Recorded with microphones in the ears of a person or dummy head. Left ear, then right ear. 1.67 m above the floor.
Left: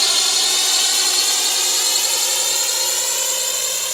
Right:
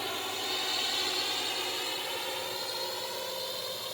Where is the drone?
75° left (ahead or behind); by 4.0 s 65° left (ahead or behind).